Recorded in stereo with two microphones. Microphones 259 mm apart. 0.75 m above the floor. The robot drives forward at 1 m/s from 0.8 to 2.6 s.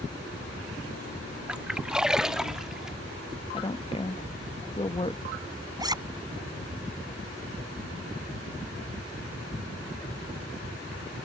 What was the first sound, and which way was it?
A splash, 5° right (ahead or behind).